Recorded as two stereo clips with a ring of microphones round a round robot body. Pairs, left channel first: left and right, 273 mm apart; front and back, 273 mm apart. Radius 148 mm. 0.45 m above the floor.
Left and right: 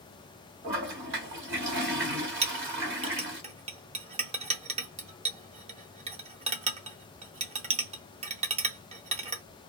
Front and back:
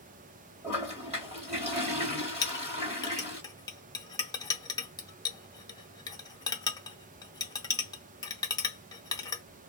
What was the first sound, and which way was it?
A toilet flushing, 120° right.